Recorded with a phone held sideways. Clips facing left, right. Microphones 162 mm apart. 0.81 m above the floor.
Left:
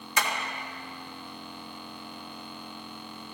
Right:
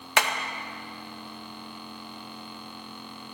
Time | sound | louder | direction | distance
0.2 | hammering | right 4 dB | 75° right (ahead or behind) | 0.8 m